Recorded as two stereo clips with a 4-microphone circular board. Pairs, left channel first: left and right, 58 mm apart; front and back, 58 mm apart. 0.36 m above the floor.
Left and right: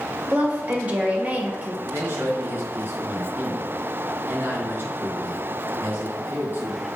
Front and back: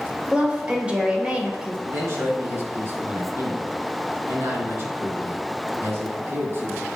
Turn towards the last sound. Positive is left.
turn(degrees=-140)